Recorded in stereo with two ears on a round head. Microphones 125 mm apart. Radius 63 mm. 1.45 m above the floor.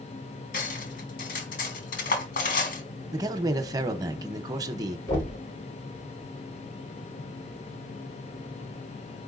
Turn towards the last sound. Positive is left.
turn(degrees=25)  # may be behind; listen again after turning